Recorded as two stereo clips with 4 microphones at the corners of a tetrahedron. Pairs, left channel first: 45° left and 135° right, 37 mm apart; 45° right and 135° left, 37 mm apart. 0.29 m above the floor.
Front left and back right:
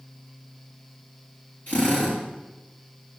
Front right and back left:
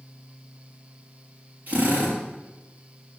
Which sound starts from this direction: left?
A drill, at 1.7 s.